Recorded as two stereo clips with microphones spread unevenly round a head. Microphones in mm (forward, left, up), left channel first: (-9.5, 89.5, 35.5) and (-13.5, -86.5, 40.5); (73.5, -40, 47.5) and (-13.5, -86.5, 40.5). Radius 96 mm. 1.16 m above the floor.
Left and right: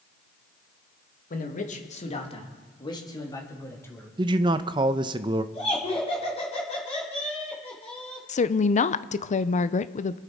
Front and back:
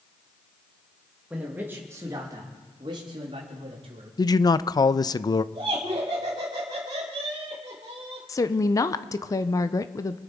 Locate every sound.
1.3 s a man speaking: 125° left, 2 m; by 4.1 s 165° left, 3.5 m
4.2 s a man speaking: 25° right, 0.6 m
5.5 s laughter: 145° left, 3 m
8.3 s a woman speaking: 75° left, 0.6 m